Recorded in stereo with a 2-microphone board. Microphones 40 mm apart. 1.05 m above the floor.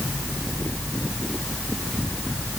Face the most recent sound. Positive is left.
No sound to turn to.